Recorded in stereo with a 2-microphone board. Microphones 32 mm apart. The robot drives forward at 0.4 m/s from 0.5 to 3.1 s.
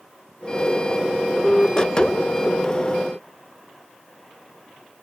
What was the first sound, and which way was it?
Only background noise.